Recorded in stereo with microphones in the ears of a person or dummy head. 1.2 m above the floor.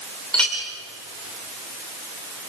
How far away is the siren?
No siren in this recording.